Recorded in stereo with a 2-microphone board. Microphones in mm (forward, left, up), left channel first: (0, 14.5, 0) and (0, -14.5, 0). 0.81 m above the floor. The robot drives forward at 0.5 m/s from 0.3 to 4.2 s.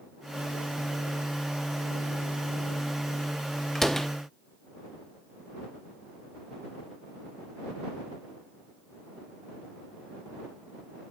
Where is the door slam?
10° left (ahead or behind), 1.0 m.